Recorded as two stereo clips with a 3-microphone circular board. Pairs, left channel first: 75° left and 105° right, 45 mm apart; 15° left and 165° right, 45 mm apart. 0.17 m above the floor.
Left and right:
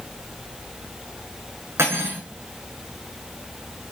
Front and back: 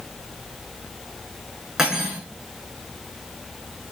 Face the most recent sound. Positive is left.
turn(degrees=-90)